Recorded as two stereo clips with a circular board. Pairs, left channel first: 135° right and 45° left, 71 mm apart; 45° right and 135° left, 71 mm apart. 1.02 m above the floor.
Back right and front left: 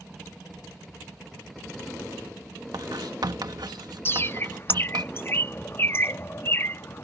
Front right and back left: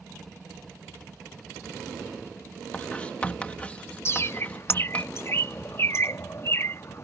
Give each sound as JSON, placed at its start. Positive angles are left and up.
{"t": 2.7, "sound": "writing", "azimuth_deg": 25}
{"t": 4.0, "sound": "a bird", "azimuth_deg": -85}